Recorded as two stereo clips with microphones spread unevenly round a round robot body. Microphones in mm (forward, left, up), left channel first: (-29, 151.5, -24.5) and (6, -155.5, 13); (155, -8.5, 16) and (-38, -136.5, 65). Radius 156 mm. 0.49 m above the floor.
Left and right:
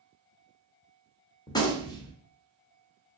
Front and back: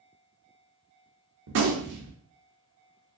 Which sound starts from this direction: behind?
A gunshot, at 1.5 s.